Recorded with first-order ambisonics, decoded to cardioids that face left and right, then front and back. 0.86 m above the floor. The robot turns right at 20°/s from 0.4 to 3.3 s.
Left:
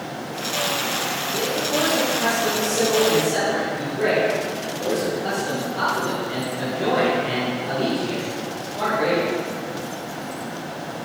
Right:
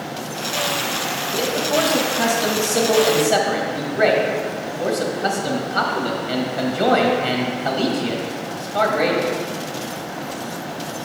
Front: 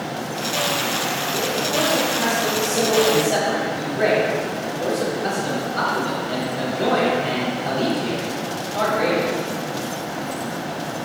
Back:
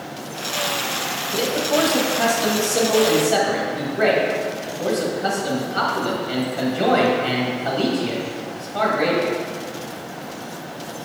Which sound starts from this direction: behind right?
A man speaking, at 1.3 s.